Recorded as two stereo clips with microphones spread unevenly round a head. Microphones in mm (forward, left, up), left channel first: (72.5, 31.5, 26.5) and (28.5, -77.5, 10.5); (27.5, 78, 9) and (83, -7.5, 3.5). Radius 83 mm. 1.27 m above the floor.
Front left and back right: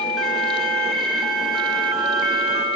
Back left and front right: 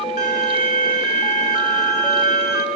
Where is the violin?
155° left, 1.1 m.